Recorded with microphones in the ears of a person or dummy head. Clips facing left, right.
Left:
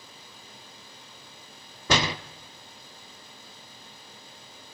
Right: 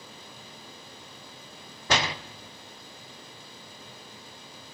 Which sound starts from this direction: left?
A door slam, at 1.9 s.